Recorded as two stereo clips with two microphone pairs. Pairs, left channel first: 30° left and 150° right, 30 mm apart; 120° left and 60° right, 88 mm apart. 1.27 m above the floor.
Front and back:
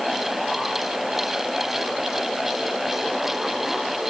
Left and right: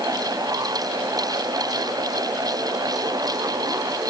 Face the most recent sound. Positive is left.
No sound to turn to.